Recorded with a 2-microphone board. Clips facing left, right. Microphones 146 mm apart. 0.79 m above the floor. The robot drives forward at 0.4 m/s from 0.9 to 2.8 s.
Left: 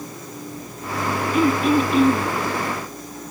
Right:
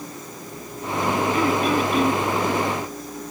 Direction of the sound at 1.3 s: 20° left (ahead or behind).